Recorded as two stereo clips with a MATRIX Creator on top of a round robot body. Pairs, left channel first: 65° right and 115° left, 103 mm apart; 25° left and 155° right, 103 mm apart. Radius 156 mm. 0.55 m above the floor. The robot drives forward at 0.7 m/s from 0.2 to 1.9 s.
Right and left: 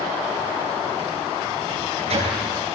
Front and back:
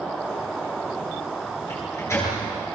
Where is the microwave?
85° left, 9 m; by 2.4 s 90° left, 9 m.